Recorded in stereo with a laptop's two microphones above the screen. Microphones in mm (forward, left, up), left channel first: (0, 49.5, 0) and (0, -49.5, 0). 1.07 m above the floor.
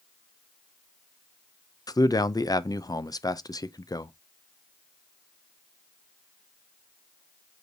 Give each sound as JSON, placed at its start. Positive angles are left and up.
{"t": 1.9, "sound": "a man speaking", "side_deg": 40, "distance_m": 0.6}